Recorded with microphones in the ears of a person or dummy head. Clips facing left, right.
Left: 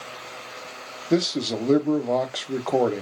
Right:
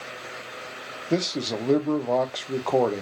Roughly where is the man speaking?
Centre.